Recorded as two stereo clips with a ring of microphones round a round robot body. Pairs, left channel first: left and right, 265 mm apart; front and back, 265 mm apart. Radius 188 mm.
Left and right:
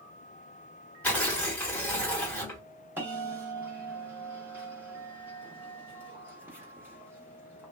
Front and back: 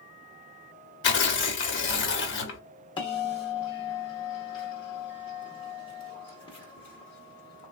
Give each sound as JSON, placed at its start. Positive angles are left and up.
{"t": 1.0, "sound": "tearing paper", "azimuth_deg": 5, "distance_m": 0.8}
{"t": 3.0, "sound": "a bell", "azimuth_deg": -25, "distance_m": 0.7}